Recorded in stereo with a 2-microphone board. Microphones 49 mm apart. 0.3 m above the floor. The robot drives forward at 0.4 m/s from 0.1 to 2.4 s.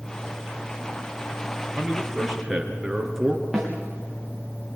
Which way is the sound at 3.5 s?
5° left (ahead or behind).